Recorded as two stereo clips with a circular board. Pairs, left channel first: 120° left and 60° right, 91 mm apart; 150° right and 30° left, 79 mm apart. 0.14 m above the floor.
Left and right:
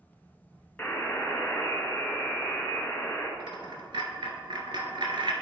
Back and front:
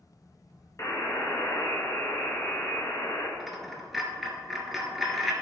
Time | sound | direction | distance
0.8 | a buzzer | 175° right | 1.7 m
3.4 | a dropped coin | 60° right | 1.2 m